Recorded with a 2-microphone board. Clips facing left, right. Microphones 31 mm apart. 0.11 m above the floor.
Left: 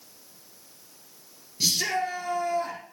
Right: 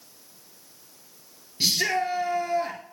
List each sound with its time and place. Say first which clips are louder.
1.6 s a shout: right 2 dB; 25° right (ahead or behind), 1.5 m